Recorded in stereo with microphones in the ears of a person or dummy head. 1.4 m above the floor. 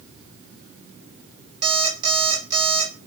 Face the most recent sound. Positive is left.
turn(degrees=-25)  # may be behind; listen again after turning